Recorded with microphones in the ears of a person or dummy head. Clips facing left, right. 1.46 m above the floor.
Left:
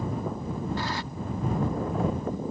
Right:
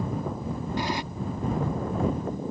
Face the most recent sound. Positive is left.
turn(degrees=-15)  # may be behind; listen again after turning